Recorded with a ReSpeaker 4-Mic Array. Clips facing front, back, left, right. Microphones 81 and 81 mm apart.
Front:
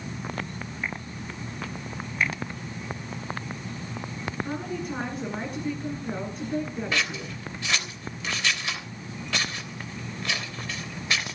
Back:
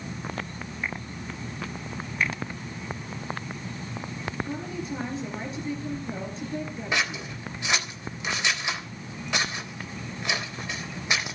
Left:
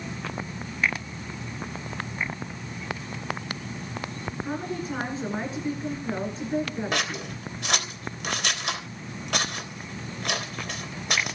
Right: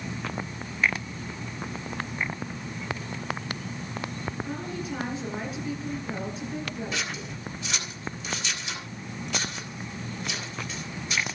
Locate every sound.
4.4 s a woman speaking: 35° left, 9 m
6.9 s scissors: 110° left, 3.5 m